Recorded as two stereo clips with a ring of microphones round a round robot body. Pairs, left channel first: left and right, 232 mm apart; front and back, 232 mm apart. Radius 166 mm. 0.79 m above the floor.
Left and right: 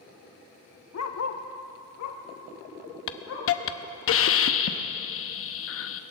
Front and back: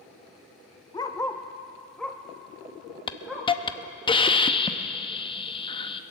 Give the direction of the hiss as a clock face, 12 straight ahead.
10 o'clock.